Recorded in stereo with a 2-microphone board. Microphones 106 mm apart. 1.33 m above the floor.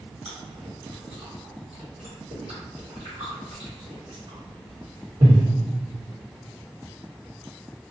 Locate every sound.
0.2 s chewing: 75° right (ahead or behind), 1.4 m